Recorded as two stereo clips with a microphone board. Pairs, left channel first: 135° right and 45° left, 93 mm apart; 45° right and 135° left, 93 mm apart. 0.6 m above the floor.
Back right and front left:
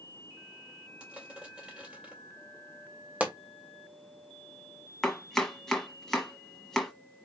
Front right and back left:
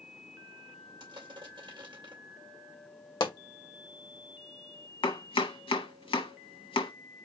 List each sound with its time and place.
1.0 s crushing: 120° left, 2.5 m
3.2 s a pop: 25° right, 1.3 m
5.0 s chopping: 50° right, 1.2 m